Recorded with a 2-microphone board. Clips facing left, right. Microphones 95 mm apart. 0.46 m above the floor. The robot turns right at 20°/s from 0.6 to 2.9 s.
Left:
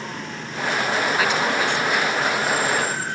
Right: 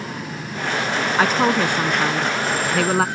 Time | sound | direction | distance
1.2 | a woman speaking | 140° right | ?